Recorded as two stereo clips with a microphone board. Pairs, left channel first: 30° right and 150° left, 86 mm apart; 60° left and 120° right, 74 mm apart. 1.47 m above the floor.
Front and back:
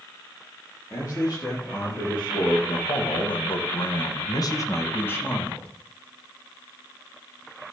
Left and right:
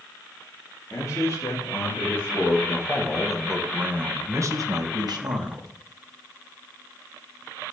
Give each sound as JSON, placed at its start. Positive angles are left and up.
{"t": 0.9, "sound": "a man speaking", "azimuth_deg": 15, "distance_m": 3.0}